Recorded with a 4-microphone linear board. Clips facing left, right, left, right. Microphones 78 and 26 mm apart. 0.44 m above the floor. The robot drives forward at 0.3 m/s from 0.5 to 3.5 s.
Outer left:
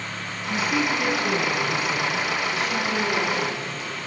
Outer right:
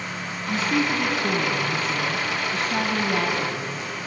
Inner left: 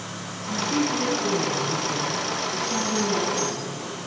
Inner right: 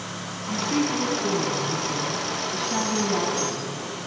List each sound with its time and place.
0.5 s a woman speaking: 35° right (ahead or behind), 3.5 m; by 3.9 s 45° right (ahead or behind), 2.5 m